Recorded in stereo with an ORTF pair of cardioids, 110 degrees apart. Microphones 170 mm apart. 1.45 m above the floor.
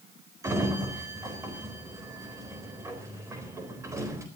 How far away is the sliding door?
About 4 m.